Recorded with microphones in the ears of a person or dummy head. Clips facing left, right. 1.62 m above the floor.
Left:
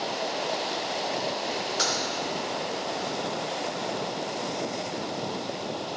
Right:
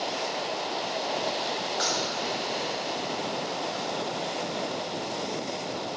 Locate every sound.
1.8 s a dropped coin: 40° left (ahead or behind), 1.7 m